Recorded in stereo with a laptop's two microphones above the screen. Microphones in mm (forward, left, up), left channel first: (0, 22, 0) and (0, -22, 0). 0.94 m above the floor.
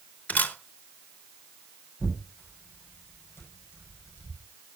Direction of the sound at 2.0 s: 60° left (ahead or behind).